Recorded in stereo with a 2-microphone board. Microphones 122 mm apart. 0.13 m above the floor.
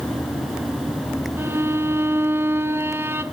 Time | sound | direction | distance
1.4 | a violin | 20° right (ahead or behind) | 1.0 m